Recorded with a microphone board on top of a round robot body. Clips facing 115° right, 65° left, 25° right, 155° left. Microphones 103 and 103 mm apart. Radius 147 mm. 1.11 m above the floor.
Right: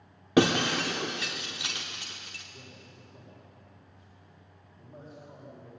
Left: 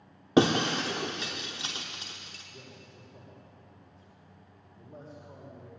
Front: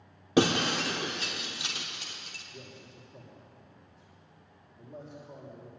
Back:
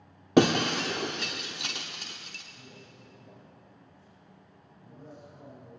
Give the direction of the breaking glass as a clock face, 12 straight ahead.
8 o'clock.